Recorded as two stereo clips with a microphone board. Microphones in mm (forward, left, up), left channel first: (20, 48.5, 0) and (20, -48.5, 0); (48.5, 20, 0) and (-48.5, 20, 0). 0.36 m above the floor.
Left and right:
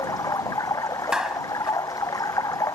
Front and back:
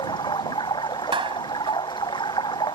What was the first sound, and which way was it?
Running water, 35° left.